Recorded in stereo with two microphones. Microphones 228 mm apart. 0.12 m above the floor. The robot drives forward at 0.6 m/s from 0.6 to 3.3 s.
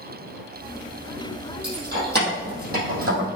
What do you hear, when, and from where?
1.6 s keys jangling: 50° right (ahead or behind), 3.5 m; by 3.4 s 40° right (ahead or behind), 4 m